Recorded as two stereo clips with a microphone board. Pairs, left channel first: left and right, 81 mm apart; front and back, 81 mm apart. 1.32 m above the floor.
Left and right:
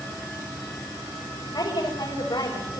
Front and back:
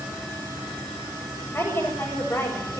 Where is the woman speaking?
60° left, 6.5 m.